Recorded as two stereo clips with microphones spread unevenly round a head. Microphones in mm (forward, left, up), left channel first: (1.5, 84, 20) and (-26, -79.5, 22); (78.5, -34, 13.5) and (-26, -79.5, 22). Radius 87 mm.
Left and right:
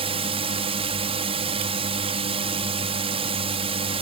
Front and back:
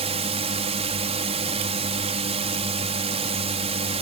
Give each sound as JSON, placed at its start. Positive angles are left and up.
{"t": 0.0, "sound": "a drone", "azimuth_deg": -150}